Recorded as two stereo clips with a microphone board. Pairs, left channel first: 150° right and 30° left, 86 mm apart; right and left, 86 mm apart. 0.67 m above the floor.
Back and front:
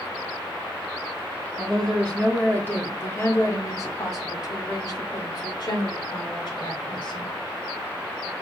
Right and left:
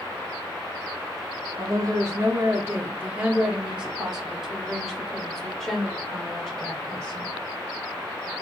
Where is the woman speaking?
125° left, 1.5 m; by 7.3 s 165° right, 3 m.